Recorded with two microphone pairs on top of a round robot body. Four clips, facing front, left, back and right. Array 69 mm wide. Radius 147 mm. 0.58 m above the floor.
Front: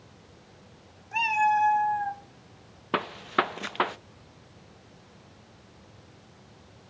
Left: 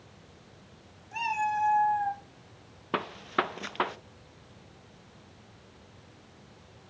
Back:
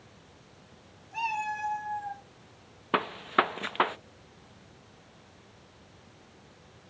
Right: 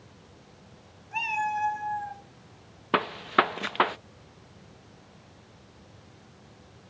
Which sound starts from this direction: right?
A gunshot, at 2.9 s.